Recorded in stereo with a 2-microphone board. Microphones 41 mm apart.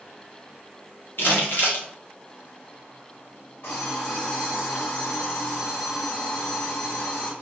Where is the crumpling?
60° left (ahead or behind), 0.9 m.